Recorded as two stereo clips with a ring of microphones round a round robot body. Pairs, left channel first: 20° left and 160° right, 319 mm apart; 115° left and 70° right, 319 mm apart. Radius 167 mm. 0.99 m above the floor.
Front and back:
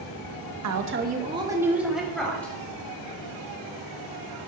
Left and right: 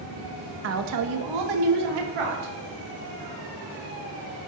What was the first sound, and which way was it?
A woman speaking, 120° right.